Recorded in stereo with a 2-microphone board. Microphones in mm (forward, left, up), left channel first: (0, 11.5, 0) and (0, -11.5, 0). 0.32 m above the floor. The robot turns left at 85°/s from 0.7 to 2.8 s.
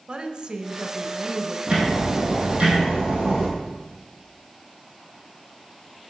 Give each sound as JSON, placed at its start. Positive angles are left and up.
{"t": 0.1, "sound": "a woman speaking", "azimuth_deg": -85, "distance_m": 1.0}
{"t": 1.7, "sound": "ticking", "azimuth_deg": -35, "distance_m": 3.5}